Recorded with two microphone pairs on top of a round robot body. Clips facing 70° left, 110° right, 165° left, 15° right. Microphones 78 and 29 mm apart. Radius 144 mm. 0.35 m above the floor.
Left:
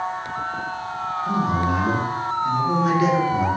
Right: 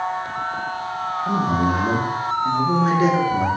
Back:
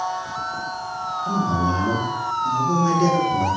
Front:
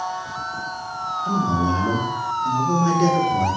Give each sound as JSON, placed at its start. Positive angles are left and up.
{"t": 1.2, "sound": "a man speaking", "azimuth_deg": -60, "distance_m": 0.9}